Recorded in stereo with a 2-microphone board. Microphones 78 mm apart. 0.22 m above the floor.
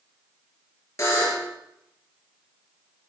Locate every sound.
1.0 s a buzzer: 40° left (ahead or behind), 3 m